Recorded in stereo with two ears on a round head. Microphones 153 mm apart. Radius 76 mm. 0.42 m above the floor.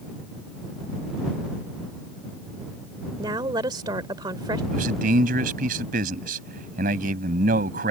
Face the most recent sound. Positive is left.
turn(degrees=-55)  # may be behind; listen again after turning